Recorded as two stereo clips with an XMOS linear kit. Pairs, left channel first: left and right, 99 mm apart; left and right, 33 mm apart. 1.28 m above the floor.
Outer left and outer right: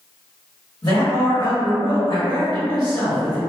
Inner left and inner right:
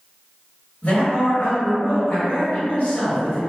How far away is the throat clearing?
I don't hear throat clearing.